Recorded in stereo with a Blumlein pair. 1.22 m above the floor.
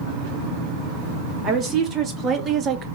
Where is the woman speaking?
25° right, 1.5 m; by 2.9 s 30° right, 0.5 m.